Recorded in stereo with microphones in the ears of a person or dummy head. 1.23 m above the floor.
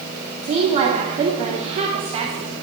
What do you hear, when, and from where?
0.4 s a woman speaking: 40° right (ahead or behind), 2.5 m